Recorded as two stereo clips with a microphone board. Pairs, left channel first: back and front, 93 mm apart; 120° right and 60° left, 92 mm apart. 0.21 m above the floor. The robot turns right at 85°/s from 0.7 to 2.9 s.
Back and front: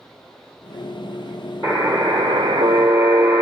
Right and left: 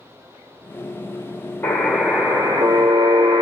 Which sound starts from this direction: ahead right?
A buzzer, at 1.6 s.